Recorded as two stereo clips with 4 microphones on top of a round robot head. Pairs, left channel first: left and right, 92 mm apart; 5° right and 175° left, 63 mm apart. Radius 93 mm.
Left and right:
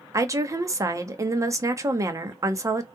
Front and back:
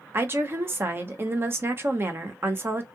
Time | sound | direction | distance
0.1 | a woman speaking | 140° right | 0.8 m